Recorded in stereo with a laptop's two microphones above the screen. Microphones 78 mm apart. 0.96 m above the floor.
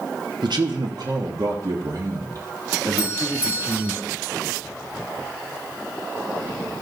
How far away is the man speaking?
About 1.1 m.